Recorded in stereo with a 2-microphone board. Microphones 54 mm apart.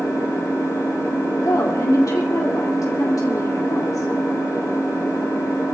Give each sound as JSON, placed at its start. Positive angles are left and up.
{"t": 0.0, "sound": "an engine running", "side_deg": 70, "distance_m": 5.5}
{"t": 1.4, "sound": "a woman speaking", "side_deg": 80, "distance_m": 2.0}